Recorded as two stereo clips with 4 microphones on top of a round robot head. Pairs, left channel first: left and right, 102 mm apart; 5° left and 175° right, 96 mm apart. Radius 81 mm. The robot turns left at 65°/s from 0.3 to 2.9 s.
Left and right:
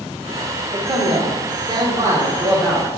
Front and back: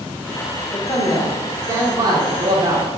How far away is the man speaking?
About 1.3 m.